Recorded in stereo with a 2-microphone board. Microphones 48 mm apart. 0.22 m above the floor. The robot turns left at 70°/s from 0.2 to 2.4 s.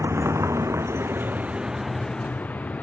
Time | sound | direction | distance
0.0 | a vehicle | 70° right (ahead or behind) | ?